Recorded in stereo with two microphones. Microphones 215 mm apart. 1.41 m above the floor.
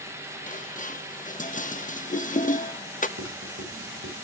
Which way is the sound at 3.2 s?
85° right.